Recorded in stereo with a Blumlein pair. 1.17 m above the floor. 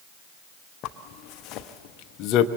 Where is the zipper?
35° left, 0.9 m.